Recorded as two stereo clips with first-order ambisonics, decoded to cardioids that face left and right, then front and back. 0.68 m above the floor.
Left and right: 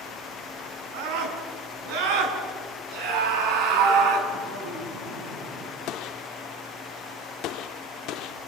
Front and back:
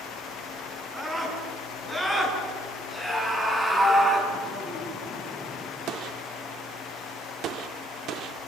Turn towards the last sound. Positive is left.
turn(degrees=130)